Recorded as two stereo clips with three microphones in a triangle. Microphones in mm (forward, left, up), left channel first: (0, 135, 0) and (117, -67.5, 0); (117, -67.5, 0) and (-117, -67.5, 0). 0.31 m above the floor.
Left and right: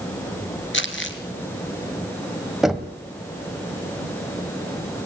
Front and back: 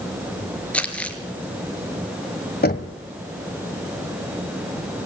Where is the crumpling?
85° left, 2.5 m.